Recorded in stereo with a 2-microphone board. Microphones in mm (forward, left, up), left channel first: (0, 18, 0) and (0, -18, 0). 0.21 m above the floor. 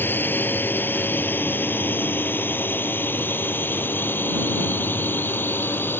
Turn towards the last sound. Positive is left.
turn(degrees=75)  # may be behind; listen again after turning